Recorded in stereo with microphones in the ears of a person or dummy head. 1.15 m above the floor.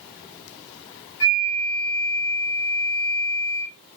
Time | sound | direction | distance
1.2 | a flute | 65° left (ahead or behind) | 1.4 m